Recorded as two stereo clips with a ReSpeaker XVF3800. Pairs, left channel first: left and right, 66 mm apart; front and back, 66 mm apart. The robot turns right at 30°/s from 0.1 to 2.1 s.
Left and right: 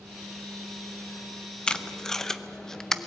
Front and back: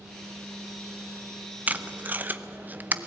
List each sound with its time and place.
1.7 s tape being pulled: 155° left, 0.7 m; by 3.1 s 165° left, 0.7 m